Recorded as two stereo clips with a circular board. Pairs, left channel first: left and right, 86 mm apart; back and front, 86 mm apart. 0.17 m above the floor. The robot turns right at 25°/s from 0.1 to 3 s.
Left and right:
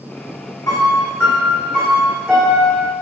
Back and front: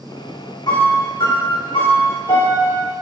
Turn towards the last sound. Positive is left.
turn(degrees=-160)